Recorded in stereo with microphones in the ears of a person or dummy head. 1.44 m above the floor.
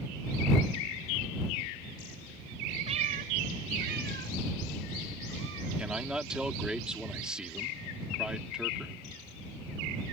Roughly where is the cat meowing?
Right.